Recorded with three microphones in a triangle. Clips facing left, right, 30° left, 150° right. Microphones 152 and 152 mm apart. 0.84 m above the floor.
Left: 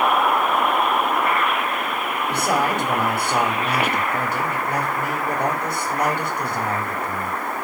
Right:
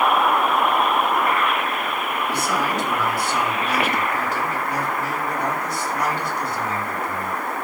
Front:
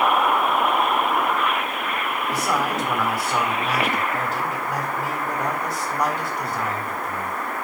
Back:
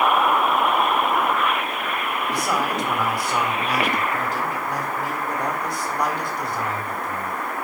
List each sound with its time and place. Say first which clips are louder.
2.3 s a man speaking: left 4 dB, front 1 dB; 115° left, 3 m